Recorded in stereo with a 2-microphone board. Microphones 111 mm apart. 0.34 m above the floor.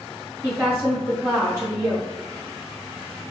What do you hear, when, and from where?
0.4 s a woman speaking: 30° right (ahead or behind), 1.2 m